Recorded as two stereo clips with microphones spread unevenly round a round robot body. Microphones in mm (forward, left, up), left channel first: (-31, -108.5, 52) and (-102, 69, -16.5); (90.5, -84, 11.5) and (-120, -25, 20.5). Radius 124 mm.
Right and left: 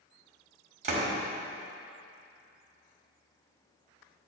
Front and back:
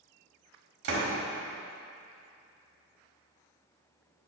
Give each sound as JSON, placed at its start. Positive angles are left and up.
{"t": 0.8, "sound": "a door slam", "azimuth_deg": 125, "distance_m": 1.7}